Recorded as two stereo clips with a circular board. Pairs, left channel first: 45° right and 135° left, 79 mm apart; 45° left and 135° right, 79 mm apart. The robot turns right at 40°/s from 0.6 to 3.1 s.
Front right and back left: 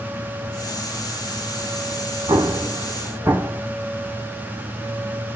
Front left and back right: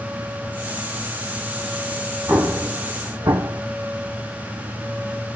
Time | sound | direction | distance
2.3 | an explosion | 160° left | 0.7 m